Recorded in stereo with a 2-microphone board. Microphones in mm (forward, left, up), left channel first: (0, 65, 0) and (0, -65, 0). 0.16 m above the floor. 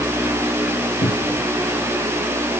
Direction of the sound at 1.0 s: 65° left (ahead or behind).